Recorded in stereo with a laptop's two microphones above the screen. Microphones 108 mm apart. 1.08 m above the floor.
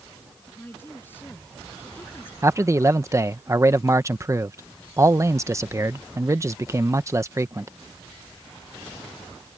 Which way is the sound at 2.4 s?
25° right (ahead or behind).